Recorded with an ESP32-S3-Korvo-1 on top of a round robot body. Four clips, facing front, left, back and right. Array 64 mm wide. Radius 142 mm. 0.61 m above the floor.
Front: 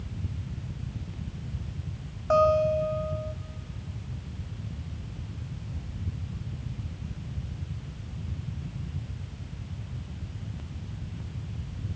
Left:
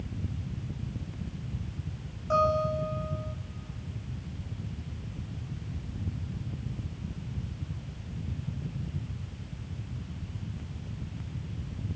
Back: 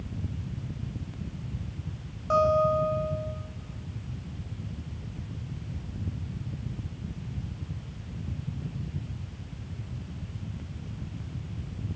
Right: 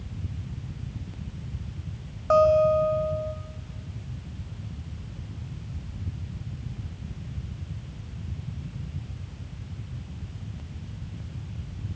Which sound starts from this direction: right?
A guitar, at 2.3 s.